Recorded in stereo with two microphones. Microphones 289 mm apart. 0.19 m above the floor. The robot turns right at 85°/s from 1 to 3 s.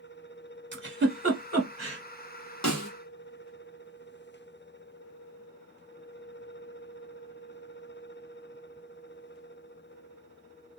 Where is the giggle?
35° right (ahead or behind), 1.2 m.